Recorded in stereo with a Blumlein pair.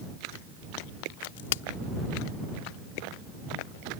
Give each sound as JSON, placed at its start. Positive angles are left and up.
{"t": 1.2, "sound": "a crack", "azimuth_deg": 55}